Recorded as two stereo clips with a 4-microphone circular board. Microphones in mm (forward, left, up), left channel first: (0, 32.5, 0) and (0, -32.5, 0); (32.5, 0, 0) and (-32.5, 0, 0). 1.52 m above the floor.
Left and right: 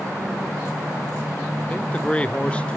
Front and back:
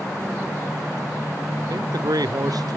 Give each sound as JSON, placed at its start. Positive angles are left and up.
{"t": 1.7, "sound": "a man speaking", "azimuth_deg": 165, "distance_m": 0.6}